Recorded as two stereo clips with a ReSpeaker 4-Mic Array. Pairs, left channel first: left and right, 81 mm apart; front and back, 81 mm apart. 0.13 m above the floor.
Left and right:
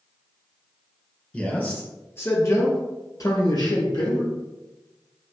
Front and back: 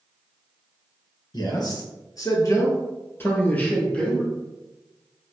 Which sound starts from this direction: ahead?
A man speaking, at 1.3 s.